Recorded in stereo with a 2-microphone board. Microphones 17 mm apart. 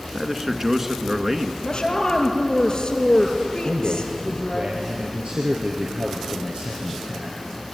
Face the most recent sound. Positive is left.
turn(degrees=-65)  # may be behind; listen again after turning